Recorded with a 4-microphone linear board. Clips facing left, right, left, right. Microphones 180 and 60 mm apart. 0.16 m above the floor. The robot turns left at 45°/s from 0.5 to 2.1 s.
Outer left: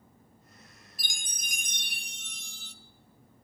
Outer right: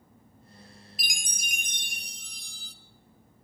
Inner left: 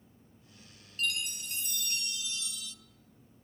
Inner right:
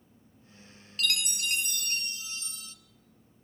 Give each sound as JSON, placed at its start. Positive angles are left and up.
{"t": 1.0, "sound": "a chime", "azimuth_deg": -95, "distance_m": 0.8}